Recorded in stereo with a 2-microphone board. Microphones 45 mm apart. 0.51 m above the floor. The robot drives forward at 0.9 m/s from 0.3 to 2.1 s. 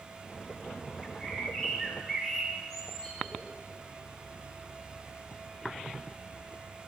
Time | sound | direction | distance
1.0 | a bird | 15° left (ahead or behind) | 1.2 m